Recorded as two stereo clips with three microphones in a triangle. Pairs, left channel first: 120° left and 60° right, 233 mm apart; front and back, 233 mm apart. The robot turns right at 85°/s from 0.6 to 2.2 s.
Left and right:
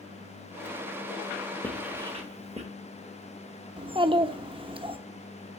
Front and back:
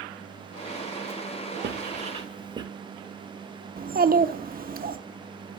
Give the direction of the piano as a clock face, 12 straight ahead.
No piano in this recording.